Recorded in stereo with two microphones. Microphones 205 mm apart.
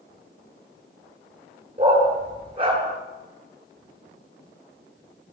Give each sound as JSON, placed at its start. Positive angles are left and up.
{"t": 1.8, "sound": "a dog barking", "side_deg": -25, "distance_m": 8.0}